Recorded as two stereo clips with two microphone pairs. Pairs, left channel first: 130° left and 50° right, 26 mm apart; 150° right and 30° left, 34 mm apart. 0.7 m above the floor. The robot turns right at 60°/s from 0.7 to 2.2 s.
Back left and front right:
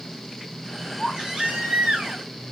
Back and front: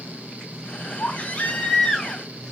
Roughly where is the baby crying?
Behind right.